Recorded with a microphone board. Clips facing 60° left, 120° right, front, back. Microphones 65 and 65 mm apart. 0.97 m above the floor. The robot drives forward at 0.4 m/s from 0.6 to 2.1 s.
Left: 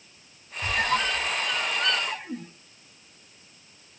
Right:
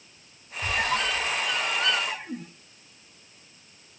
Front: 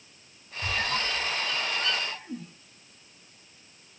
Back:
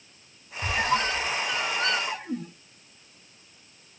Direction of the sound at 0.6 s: 135° left.